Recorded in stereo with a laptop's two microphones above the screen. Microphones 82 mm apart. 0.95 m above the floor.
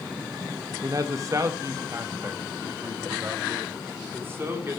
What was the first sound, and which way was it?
A man speaking, 45° right (ahead or behind).